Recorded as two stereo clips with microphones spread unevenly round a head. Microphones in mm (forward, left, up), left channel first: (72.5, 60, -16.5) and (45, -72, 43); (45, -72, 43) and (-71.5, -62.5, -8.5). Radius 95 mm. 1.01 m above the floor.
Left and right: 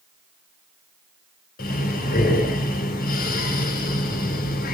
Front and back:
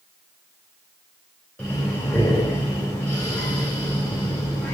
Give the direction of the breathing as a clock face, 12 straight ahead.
9 o'clock.